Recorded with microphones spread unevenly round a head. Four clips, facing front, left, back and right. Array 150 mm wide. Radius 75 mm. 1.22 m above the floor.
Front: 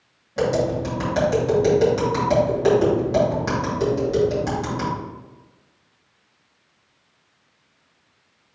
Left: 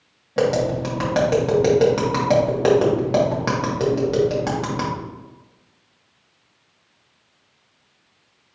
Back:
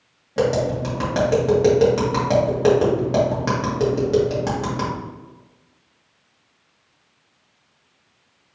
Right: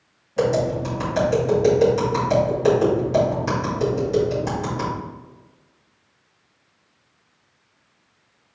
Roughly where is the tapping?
Behind left.